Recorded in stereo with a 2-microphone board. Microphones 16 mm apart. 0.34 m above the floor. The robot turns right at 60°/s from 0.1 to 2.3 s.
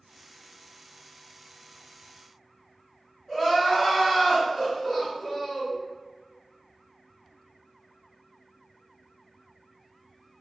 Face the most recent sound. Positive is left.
turn(degrees=20)  # may be behind; listen again after turning